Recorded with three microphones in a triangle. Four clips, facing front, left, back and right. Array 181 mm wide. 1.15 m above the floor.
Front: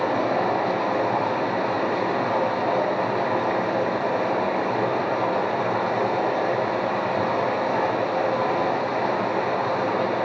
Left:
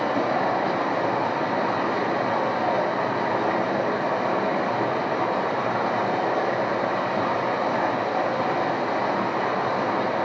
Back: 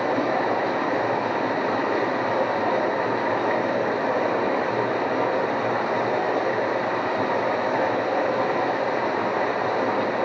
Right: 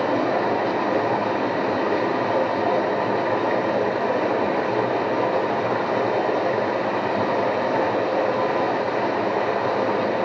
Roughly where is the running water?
Right.